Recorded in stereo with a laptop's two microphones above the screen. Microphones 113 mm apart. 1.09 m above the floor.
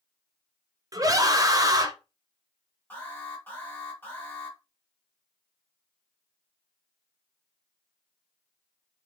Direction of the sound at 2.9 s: 15° left (ahead or behind).